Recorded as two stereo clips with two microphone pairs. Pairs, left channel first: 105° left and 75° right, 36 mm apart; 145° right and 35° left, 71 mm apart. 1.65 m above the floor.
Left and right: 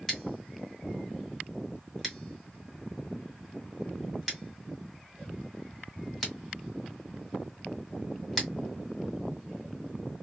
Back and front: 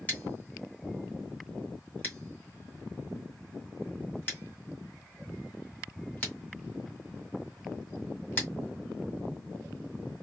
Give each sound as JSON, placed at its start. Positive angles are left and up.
{"t": 0.1, "sound": "scissors", "azimuth_deg": 180, "distance_m": 1.6}